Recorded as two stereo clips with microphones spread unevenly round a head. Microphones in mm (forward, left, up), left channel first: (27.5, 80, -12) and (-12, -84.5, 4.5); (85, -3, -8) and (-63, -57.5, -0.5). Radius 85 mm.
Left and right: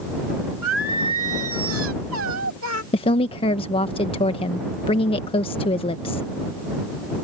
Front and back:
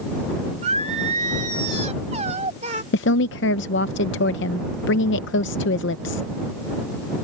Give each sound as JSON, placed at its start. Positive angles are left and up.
{"t": 0.6, "sound": "singing", "azimuth_deg": -115}
{"t": 2.9, "sound": "a woman speaking", "azimuth_deg": 15}